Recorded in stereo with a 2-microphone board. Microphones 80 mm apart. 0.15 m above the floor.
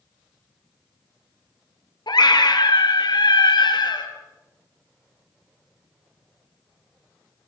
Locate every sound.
2.1 s a scream: 65° left (ahead or behind), 3 m